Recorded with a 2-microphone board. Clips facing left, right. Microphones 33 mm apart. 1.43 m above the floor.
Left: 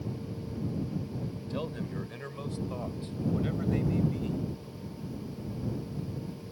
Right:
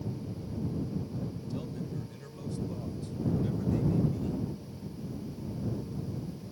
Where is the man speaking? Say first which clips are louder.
Left 2 dB; 45° left (ahead or behind); by 4.5 s 40° left (ahead or behind).